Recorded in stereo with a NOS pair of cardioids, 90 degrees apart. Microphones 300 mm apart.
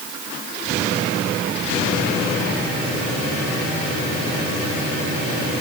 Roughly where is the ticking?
I don't hear ticking.